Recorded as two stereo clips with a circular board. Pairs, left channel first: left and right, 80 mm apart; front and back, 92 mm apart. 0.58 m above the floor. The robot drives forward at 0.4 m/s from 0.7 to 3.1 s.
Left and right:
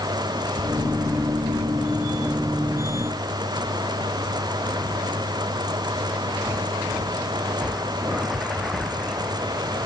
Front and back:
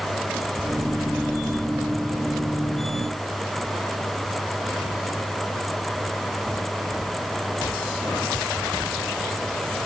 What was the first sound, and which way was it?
Only background noise.